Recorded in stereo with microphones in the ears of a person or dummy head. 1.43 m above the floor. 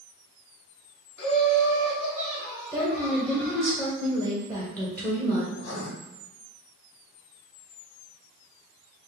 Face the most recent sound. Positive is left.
turn(degrees=70)  # may be behind; listen again after turning